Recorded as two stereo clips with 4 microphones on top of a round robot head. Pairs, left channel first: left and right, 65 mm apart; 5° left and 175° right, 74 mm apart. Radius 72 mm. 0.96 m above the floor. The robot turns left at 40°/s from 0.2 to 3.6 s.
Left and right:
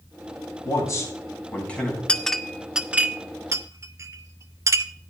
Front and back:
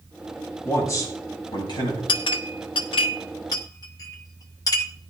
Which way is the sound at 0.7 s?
60° left.